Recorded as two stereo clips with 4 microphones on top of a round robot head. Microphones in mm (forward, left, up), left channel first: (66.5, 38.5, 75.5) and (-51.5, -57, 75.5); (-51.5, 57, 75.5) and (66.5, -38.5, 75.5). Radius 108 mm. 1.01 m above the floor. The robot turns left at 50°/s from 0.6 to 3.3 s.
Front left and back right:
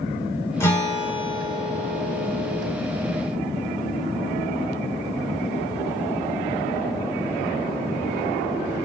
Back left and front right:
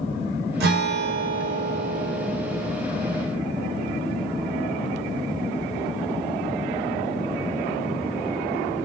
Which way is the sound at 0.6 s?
35° right.